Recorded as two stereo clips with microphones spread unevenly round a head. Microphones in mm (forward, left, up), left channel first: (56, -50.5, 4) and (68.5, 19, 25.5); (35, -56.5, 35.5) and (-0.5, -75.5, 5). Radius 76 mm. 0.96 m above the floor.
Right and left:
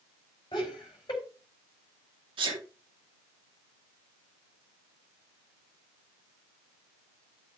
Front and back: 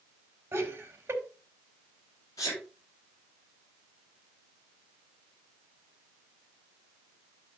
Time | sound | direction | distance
0.5 | laughter | 140° right | 4.5 m
2.4 | a sneeze | 85° left | 2.5 m